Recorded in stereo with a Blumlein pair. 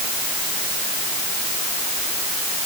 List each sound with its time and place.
Only background noise.